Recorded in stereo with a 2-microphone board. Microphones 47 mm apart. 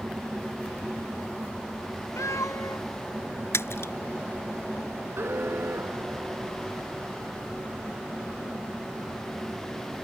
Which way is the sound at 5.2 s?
50° right (ahead or behind).